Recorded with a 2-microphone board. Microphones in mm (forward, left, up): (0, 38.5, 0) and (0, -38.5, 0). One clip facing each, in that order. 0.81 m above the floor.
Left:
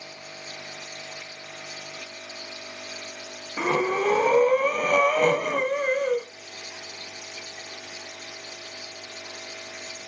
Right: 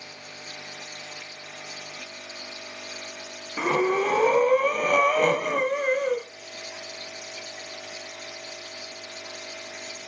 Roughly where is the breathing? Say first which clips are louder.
Right 1 dB; centre.